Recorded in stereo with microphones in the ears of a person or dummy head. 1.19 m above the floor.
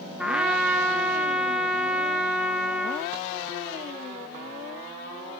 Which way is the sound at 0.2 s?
5° right (ahead or behind).